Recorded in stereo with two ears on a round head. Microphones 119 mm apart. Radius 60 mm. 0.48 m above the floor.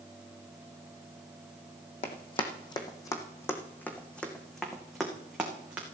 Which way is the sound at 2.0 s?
50° left (ahead or behind).